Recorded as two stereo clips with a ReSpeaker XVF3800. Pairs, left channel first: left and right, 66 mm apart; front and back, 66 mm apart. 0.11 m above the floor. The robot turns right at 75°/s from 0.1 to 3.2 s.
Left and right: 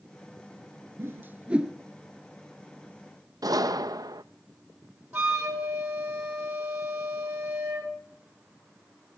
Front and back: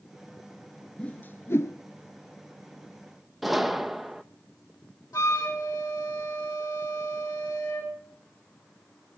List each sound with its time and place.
1.0 s a whoosh: 65° right, 0.5 m; by 1.8 s 10° right, 0.5 m
3.4 s a gunshot: 90° right, 0.6 m
5.1 s a flute: 25° right, 4 m